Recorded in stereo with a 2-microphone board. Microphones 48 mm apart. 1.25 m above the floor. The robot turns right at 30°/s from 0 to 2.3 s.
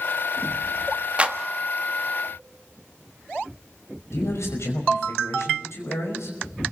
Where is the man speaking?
70° left (ahead or behind), 5.5 m.